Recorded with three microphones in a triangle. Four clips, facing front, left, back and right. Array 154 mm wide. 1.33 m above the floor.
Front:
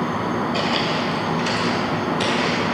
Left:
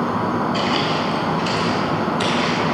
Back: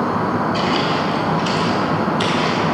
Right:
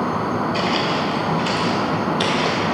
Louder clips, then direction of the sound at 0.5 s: Even, back 3 dB; 55° right.